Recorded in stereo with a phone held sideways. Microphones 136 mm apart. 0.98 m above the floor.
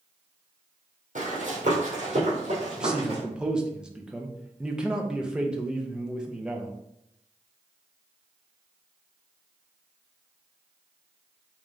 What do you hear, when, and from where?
1.1 s running footsteps: 60° right (ahead or behind), 1.9 m; by 3.2 s 40° right (ahead or behind), 2 m
2.8 s a man speaking: 5° right (ahead or behind), 0.5 m